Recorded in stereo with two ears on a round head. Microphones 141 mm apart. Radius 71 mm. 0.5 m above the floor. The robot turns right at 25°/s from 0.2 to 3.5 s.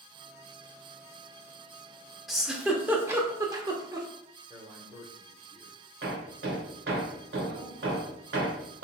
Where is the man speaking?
25° right (ahead or behind), 1.2 m.